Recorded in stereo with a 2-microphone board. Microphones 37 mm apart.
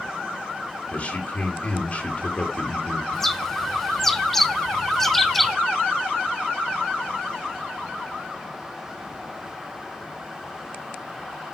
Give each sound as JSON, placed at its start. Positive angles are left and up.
{"t": 0.9, "sound": "a man speaking", "side_deg": 35, "distance_m": 2.5}
{"t": 3.1, "sound": "a bird", "side_deg": 5, "distance_m": 0.8}